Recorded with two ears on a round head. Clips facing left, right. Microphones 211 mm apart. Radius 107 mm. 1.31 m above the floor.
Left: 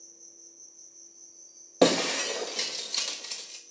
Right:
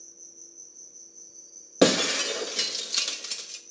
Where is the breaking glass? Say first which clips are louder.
Right 1 dB; 15° right (ahead or behind), 1.0 m.